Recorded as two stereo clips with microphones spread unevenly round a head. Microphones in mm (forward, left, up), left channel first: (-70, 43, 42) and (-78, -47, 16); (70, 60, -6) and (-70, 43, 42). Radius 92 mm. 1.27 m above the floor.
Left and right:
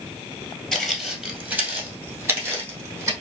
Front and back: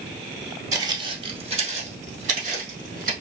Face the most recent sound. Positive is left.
turn(degrees=-155)